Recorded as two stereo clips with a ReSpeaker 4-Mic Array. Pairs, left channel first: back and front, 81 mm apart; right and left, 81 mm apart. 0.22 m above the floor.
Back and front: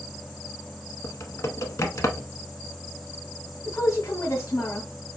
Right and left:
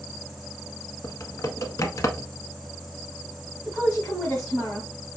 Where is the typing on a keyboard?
135° right, 0.6 m.